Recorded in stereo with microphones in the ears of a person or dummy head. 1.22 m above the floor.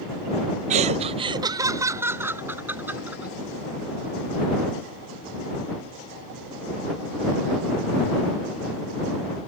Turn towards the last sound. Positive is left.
turn(degrees=-10)  # may be behind; listen again after turning